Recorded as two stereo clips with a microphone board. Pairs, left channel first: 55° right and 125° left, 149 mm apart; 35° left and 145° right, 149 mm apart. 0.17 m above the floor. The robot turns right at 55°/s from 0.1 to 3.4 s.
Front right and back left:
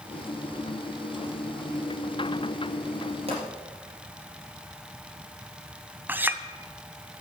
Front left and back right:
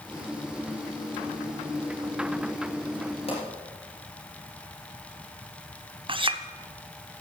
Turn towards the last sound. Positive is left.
turn(degrees=-165)